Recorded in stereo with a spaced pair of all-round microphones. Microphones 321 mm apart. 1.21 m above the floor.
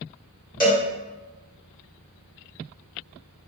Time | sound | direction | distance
0.6 | a cowbell | 25° left (ahead or behind) | 1.6 m